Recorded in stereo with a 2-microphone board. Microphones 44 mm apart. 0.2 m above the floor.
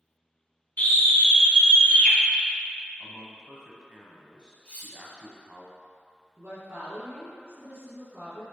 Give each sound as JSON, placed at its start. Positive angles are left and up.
{"t": 0.8, "sound": "a scream", "side_deg": 40, "distance_m": 2.0}
{"t": 3.0, "sound": "a man speaking", "side_deg": -20, "distance_m": 1.2}
{"t": 4.7, "sound": "cutlery clinking", "side_deg": 30, "distance_m": 2.0}
{"t": 6.4, "sound": "a woman speaking", "side_deg": -50, "distance_m": 2.5}